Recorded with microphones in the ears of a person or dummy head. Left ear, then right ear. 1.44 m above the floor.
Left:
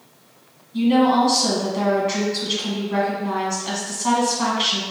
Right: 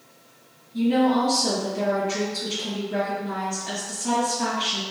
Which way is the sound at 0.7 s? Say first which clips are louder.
Left 4 dB; 55° left (ahead or behind).